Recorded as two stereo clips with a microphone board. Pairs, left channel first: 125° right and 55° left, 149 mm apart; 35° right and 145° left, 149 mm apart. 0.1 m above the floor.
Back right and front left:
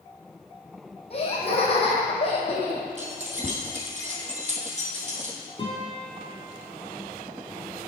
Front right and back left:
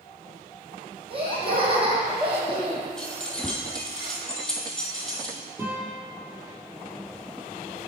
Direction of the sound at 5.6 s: 150° right.